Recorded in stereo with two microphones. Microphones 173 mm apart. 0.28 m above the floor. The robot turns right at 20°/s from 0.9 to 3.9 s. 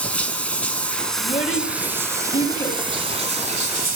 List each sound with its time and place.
0.0 s running water: 170° left, 1.0 m; by 4.0 s 130° right, 1.0 m
1.2 s a child speaking: 45° left (ahead or behind), 1.5 m; by 2.8 s 30° left (ahead or behind), 1.5 m